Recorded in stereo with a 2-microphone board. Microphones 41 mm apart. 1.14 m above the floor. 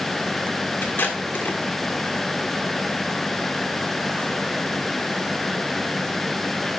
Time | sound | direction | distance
0.8 | tape being pulled | 60° left (ahead or behind) | 1.5 m